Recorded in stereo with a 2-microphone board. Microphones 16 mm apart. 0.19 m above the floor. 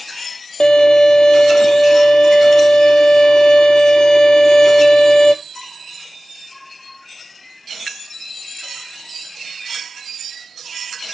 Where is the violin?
75° left (ahead or behind), 0.8 m.